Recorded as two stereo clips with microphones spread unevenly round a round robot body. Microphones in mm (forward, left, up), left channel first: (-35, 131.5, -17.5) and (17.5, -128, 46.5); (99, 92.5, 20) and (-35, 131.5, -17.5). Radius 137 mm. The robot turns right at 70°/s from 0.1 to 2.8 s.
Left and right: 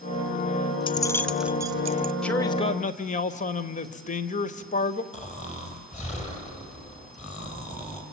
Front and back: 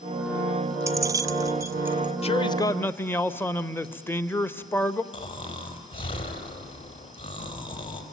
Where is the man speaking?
30° left, 1.3 m; by 5.0 s 70° left, 1.3 m.